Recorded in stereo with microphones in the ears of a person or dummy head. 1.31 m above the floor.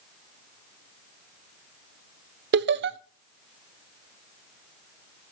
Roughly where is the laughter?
Right.